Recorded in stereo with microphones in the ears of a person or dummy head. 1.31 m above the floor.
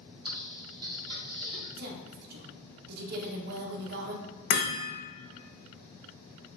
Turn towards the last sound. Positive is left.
turn(degrees=60)  # may be behind; listen again after turning